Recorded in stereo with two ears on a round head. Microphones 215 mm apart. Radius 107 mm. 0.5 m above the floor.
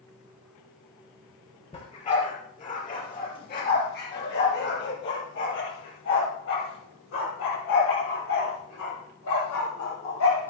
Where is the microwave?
I don't hear a microwave.